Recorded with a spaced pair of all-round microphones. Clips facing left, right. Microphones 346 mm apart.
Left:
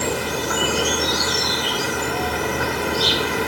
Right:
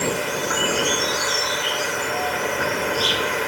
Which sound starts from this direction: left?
An insect, at 0.0 s.